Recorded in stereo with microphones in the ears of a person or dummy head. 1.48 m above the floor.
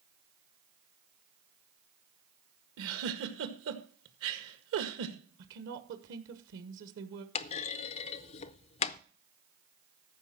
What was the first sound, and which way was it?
A giggle, 75° right (ahead or behind).